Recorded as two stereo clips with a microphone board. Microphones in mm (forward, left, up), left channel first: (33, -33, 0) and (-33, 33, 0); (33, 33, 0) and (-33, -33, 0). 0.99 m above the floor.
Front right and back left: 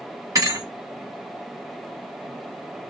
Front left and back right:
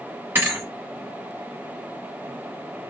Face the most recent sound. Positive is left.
turn(degrees=170)